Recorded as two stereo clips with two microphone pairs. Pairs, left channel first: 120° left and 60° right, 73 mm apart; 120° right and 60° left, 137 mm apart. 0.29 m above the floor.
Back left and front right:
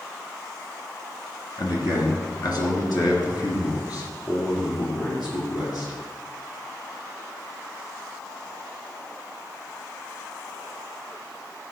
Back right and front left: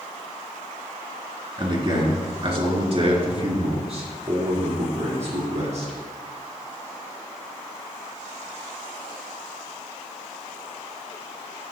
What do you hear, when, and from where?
1.6 s a man speaking: 105° left, 2.5 m; by 5.9 s 90° left, 6 m